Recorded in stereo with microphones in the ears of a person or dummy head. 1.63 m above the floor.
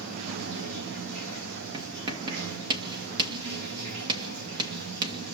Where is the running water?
65° right (ahead or behind), 1.7 m.